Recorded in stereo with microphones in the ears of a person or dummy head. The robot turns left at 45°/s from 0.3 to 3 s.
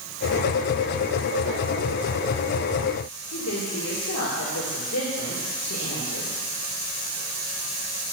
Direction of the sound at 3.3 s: 75° left (ahead or behind).